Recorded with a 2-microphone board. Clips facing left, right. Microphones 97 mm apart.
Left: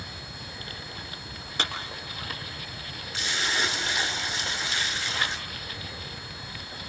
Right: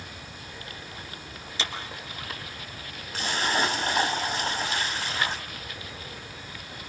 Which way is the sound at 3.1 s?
45° right (ahead or behind).